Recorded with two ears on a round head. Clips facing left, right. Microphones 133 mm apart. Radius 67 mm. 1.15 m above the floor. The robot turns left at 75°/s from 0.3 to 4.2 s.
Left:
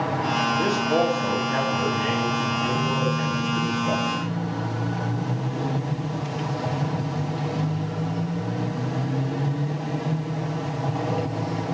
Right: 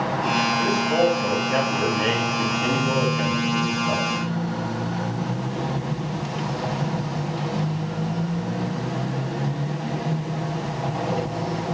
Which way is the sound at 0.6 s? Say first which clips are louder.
Right 1 dB; 50° left.